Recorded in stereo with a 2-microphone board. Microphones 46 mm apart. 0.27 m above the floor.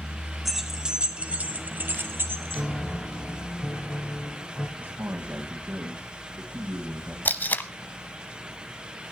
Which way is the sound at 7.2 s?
40° left (ahead or behind).